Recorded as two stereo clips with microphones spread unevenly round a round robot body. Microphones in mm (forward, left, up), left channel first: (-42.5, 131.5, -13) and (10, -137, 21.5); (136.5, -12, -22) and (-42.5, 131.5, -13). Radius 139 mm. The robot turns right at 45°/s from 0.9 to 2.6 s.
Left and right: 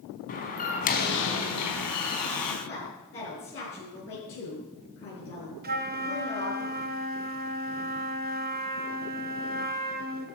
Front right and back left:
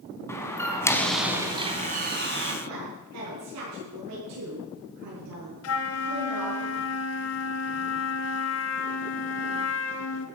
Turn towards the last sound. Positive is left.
turn(degrees=-20)